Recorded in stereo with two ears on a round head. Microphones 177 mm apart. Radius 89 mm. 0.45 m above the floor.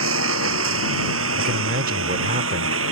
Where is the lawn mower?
75° right (ahead or behind).